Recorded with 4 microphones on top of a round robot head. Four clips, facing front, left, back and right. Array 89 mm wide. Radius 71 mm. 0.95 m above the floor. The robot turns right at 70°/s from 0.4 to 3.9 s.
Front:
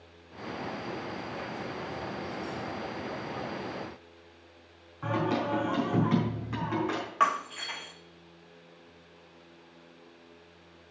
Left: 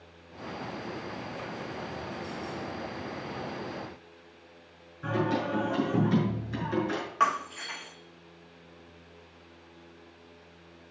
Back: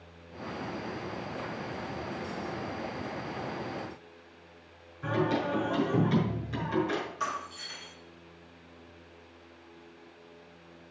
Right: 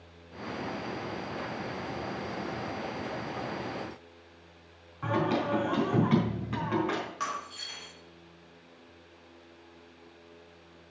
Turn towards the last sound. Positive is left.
turn(degrees=35)